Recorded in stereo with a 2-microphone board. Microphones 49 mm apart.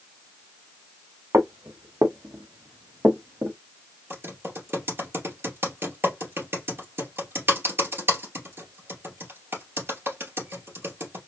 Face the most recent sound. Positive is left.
turn(degrees=-50)  # may be behind; listen again after turning